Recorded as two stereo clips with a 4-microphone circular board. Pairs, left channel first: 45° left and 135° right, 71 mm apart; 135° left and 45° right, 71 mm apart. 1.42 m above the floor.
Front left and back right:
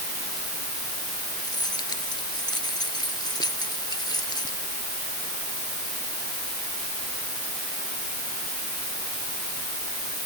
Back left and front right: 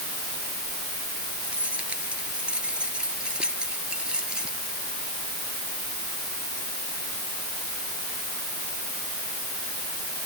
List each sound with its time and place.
1.4 s keys jangling: 30° left; by 4.6 s 35° left